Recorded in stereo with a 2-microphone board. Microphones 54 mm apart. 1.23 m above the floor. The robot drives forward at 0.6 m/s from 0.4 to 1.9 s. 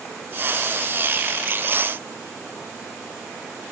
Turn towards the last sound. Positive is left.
No sound to turn to.